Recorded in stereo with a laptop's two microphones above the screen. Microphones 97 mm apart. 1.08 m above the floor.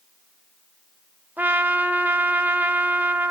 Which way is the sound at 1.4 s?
15° right (ahead or behind).